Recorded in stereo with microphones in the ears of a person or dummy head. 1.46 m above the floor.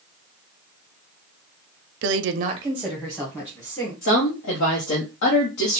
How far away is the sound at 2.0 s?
About 0.7 m.